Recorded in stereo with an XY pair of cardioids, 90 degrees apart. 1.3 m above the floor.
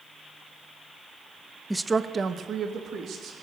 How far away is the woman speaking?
About 0.8 m.